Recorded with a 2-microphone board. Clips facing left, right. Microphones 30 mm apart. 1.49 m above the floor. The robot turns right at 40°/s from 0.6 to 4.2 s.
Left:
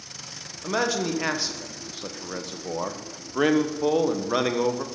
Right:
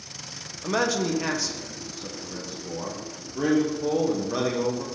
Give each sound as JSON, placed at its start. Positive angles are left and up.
{"t": 0.6, "sound": "a man speaking", "azimuth_deg": 0, "distance_m": 0.8}